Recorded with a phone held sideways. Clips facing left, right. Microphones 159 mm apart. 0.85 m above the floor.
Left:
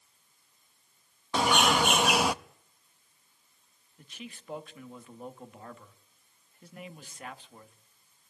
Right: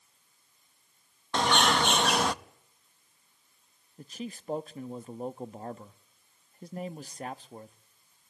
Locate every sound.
1.3 s a bird: 10° left (ahead or behind), 0.6 m
4.0 s a man speaking: 35° right (ahead or behind), 1.0 m